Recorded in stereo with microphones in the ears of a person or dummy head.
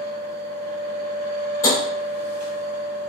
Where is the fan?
50° right (ahead or behind), 1.3 m.